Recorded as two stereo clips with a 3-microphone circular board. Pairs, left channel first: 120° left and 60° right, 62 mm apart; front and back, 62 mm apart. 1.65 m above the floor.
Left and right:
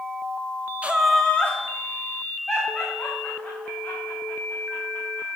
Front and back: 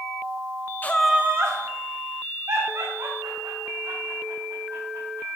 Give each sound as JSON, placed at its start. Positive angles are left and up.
{"t": 0.8, "sound": "laughter", "azimuth_deg": -15, "distance_m": 0.6}